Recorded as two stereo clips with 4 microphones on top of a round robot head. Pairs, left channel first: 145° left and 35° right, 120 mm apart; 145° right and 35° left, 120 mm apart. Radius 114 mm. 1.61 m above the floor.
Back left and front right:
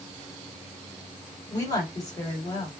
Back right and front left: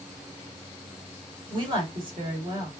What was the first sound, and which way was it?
A woman speaking, 85° left.